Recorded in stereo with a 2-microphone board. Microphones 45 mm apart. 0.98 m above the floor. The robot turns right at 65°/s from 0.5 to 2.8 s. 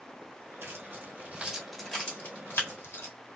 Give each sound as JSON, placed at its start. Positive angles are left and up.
{"t": 0.6, "sound": "keys jangling", "side_deg": -70, "distance_m": 1.6}